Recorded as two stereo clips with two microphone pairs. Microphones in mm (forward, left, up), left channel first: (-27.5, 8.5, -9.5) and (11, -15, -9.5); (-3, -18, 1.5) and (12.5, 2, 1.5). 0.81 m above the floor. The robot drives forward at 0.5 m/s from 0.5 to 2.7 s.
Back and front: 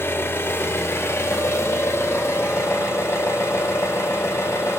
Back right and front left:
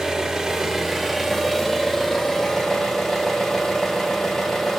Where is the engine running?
120° left, 0.9 m; by 4.8 s 150° left, 1.7 m.